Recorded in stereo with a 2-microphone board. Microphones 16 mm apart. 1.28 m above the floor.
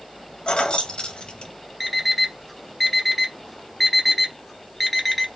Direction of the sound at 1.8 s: Centre (ahead or behind).